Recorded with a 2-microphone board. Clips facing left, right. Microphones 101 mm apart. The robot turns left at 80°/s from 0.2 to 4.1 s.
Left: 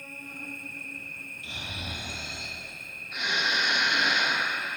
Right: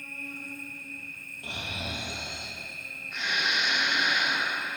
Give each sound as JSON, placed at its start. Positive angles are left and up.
{"t": 0.0, "sound": "an insect", "azimuth_deg": 150, "distance_m": 1.6}
{"t": 1.4, "sound": "snoring", "azimuth_deg": -50, "distance_m": 1.6}